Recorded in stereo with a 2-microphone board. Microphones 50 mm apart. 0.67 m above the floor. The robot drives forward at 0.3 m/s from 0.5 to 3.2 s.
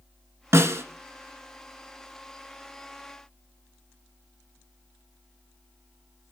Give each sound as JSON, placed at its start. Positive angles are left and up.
{"t": 0.5, "sound": "a snare drum", "side_deg": -65, "distance_m": 1.2}